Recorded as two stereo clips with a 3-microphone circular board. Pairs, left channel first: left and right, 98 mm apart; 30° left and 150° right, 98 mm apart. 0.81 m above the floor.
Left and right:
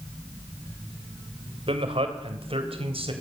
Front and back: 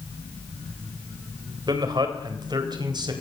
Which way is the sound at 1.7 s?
105° right.